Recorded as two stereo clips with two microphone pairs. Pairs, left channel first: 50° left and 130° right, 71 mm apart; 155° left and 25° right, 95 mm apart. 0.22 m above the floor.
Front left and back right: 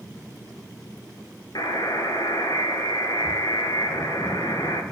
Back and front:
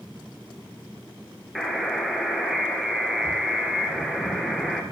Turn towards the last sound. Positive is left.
turn(degrees=65)